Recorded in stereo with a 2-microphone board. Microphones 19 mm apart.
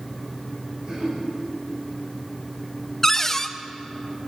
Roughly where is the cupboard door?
Centre.